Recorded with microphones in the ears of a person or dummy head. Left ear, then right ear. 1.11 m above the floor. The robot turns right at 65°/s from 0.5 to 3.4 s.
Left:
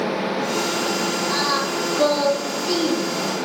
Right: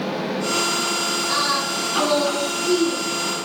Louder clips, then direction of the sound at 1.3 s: Even; 20° right (ahead or behind).